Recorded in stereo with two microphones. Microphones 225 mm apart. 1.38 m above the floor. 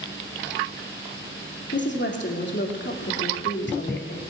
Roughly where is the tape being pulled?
I don't hear tape being pulled.